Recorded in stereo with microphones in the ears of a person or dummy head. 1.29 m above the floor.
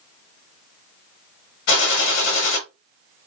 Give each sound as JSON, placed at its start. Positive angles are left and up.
{"t": 1.7, "sound": "a gunshot", "side_deg": 75, "distance_m": 1.1}